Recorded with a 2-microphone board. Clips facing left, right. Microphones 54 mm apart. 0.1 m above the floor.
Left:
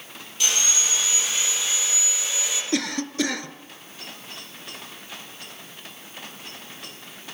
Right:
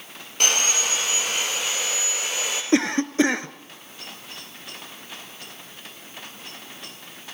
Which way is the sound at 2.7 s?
30° right (ahead or behind).